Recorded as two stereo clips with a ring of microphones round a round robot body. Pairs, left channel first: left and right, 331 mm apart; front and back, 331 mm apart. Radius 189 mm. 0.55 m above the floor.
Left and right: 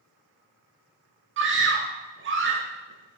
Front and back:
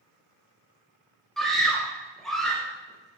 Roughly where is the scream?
Right.